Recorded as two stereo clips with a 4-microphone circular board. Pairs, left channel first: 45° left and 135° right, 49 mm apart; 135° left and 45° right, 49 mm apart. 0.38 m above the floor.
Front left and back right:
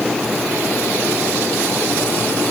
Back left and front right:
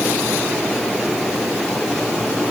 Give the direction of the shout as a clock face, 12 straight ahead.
No shout in this recording.